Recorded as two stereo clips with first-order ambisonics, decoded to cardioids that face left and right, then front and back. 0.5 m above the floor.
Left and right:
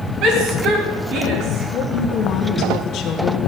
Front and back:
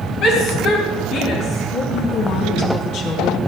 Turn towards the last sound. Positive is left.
turn(degrees=35)